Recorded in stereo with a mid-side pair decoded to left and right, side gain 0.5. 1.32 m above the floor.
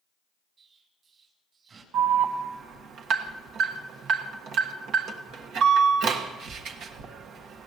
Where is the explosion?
50° right, 4 m.